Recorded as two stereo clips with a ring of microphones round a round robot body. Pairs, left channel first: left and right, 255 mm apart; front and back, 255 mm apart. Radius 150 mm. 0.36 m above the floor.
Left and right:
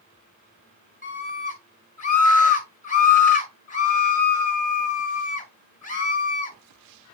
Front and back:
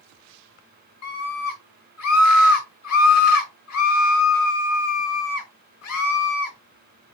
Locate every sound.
1.0 s a scream: 30° left, 5 m